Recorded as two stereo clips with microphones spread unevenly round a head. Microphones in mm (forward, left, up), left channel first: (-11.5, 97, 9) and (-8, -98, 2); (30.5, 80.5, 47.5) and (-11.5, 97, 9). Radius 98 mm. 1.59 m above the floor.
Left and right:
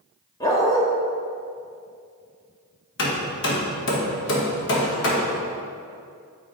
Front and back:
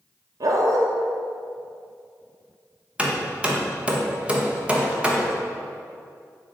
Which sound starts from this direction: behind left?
A dog barking, at 0.4 s.